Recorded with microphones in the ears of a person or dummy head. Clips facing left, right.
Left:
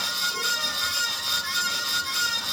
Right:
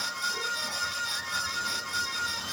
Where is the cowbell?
I don't hear a cowbell.